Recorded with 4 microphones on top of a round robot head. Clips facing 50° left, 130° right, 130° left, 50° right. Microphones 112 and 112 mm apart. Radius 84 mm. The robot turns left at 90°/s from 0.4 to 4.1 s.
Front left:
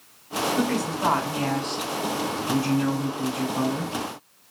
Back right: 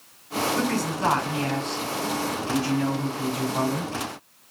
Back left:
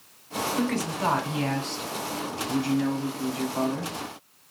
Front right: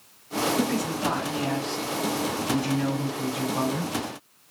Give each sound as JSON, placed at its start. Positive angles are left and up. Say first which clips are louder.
{"t": 0.6, "sound": "a woman speaking", "louder": "front left 3 dB, front right 1 dB", "azimuth_deg": 170, "distance_m": 3.5}